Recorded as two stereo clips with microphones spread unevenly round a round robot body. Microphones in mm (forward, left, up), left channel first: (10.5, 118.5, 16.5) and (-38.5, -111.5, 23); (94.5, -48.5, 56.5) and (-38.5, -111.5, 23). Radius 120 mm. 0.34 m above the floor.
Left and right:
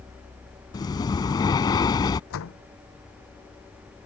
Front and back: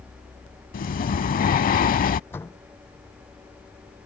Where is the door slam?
105° left.